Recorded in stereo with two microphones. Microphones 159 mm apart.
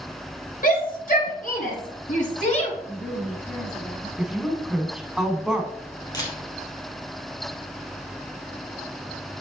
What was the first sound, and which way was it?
A shout, 60° left (ahead or behind).